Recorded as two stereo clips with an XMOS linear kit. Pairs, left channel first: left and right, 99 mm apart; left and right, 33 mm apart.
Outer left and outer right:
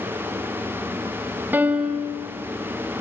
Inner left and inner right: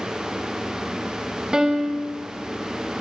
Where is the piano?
20° right (ahead or behind), 3.5 m.